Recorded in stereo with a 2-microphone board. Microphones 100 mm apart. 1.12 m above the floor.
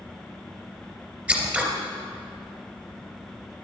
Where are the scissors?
15° right (ahead or behind), 3 m.